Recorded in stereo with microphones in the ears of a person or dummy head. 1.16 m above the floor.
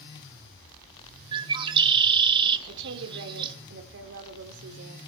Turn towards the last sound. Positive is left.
turn(degrees=-60)  # may be behind; listen again after turning